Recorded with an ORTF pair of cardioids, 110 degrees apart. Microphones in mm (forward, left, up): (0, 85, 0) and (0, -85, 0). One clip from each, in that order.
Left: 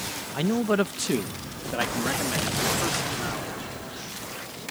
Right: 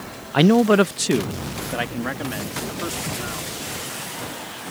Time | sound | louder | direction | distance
0.3 | a man speaking | right 9 dB | 60° right | ?